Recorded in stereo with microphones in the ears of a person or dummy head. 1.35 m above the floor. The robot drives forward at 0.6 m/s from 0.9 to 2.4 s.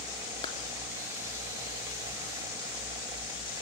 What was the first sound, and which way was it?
A clap, 25° left (ahead or behind).